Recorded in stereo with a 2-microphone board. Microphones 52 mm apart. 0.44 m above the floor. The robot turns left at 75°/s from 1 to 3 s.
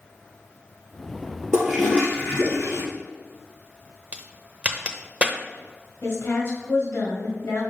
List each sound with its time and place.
1.5 s a toilet flushing: 165° right, 2 m; by 2.8 s 100° left, 2 m
4.1 s a crack: 25° right (ahead or behind), 0.7 m
6.0 s a woman speaking: 60° left (ahead or behind), 1.9 m